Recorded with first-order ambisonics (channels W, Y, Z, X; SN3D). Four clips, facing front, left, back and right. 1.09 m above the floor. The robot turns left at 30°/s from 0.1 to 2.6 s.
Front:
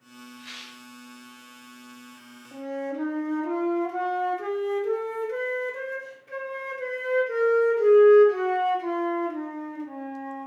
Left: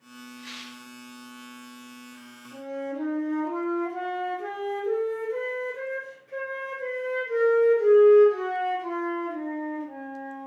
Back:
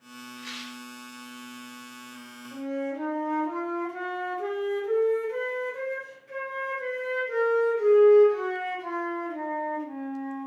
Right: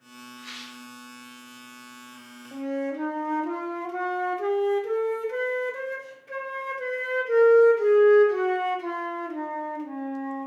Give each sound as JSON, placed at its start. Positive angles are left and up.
{"t": 0.4, "sound": "a rattle", "azimuth_deg": 180, "distance_m": 1.0}
{"t": 2.5, "sound": "a flute", "azimuth_deg": -70, "distance_m": 0.5}